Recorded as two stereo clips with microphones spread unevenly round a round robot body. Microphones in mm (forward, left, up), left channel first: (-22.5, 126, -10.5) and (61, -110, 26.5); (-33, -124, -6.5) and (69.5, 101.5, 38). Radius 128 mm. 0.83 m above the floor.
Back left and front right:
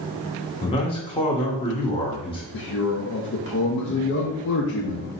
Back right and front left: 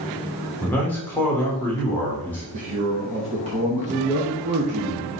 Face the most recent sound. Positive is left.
turn(degrees=130)